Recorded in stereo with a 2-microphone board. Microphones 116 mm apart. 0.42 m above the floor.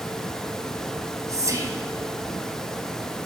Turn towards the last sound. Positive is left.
turn(degrees=-30)  # may be behind; listen again after turning